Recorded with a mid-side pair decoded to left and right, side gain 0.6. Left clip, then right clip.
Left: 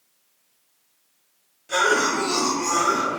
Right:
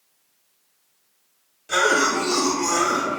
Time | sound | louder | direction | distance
1.7 | a cough | right 1 dB | 20° right | 1.0 m